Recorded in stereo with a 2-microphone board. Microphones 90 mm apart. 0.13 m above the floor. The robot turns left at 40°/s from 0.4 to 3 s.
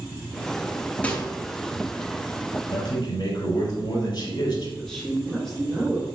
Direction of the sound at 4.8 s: 5° left (ahead or behind).